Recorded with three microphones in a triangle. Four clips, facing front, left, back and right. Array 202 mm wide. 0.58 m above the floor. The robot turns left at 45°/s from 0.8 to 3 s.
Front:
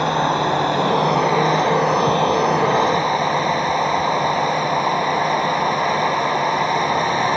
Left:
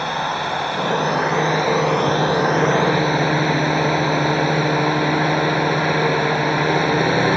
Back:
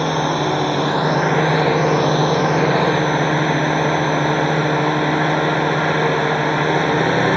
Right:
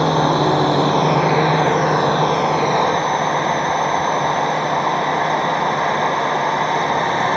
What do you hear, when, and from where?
0.0 s a drone: 115° right; by 7.4 s 145° left